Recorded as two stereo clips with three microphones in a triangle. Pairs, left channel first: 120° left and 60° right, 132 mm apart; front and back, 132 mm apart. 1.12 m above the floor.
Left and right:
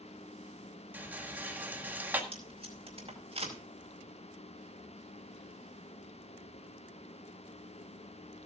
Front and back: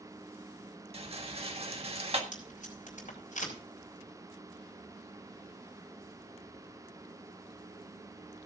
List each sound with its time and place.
0.9 s a rattle: 135° right, 1.7 m
2.3 s tape being pulled: 15° right, 5 m